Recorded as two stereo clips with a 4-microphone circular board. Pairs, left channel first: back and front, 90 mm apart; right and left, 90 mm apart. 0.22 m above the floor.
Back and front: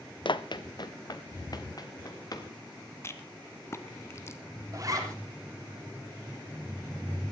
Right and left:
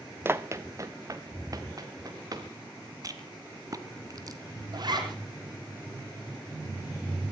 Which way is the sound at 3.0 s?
125° left.